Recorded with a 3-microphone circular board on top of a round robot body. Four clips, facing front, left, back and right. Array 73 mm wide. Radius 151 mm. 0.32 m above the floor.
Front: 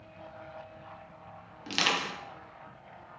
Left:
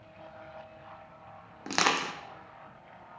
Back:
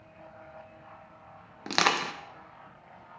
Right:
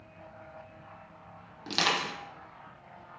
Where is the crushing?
150° left, 0.6 m.